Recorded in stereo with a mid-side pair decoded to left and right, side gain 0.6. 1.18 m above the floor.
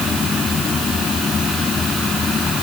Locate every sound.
0.0 s a fan: 30° left